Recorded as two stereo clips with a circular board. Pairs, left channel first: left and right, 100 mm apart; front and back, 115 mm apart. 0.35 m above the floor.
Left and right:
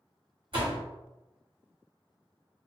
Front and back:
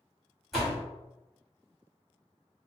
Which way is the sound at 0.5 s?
90° right.